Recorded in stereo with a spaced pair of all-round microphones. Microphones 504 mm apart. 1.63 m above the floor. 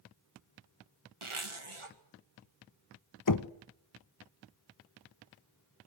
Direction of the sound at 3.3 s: 40° left (ahead or behind).